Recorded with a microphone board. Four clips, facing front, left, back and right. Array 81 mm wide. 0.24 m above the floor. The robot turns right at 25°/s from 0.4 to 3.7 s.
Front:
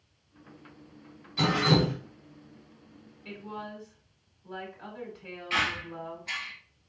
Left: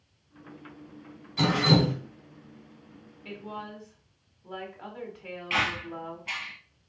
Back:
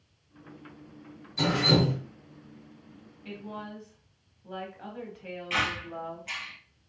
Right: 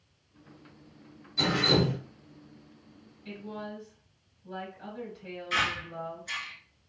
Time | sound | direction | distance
1.4 | dripping | 60° left | 1.5 m
3.2 | a woman speaking | 100° left | 1.1 m
5.5 | a squeak | 95° left | 1.1 m